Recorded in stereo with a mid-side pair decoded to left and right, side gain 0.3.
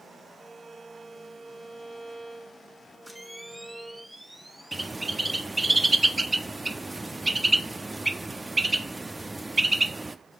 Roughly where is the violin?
Ahead.